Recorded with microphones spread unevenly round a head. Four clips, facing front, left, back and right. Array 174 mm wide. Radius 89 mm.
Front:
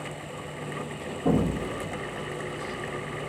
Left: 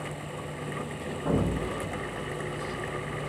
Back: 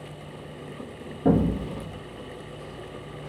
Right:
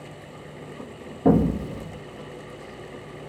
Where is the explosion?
110° right, 1.2 m.